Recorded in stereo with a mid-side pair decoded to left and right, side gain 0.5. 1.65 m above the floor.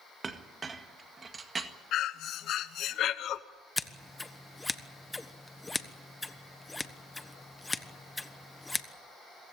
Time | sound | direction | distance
0.2 | a clink | 35° right | 1.8 m
1.9 | breathing | 60° left | 1.0 m
3.8 | scissors | 15° left | 1.3 m